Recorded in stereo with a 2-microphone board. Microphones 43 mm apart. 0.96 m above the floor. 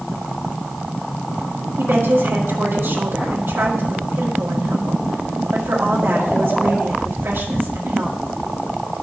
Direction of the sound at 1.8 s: 60° right (ahead or behind).